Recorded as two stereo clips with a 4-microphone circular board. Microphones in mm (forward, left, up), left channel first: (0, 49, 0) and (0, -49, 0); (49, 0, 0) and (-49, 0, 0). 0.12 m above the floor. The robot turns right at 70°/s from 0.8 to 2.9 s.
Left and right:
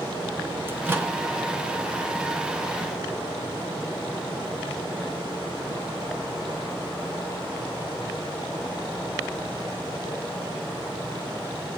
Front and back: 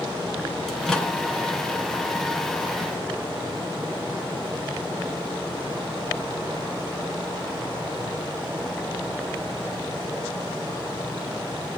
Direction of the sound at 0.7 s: 80° right.